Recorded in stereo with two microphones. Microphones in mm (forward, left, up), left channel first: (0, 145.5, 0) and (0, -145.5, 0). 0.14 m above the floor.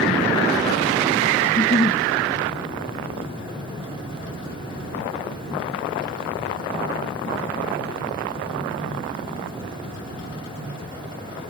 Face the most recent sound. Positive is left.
turn(degrees=25)  # may be behind; listen again after turning